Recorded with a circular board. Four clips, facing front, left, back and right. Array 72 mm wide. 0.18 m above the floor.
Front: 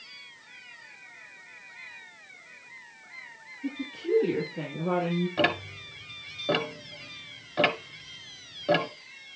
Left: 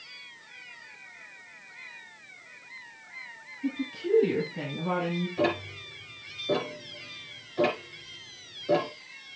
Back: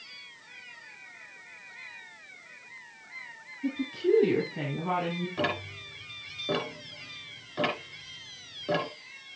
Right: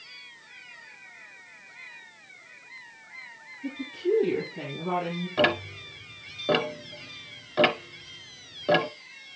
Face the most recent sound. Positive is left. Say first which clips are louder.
# right 5 dB, front 3 dB
turn(degrees=-65)